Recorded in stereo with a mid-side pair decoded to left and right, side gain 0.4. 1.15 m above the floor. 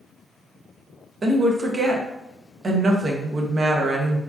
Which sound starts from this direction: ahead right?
A woman speaking, at 1.2 s.